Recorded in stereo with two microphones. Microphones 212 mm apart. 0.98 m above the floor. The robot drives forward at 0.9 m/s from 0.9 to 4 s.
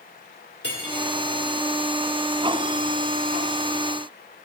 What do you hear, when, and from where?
0.6 s cutlery clinking: 55° left (ahead or behind), 2.5 m